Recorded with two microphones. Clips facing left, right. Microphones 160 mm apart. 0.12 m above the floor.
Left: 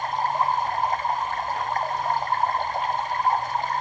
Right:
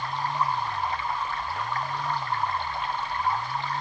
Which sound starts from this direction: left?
Running water, at 0.0 s.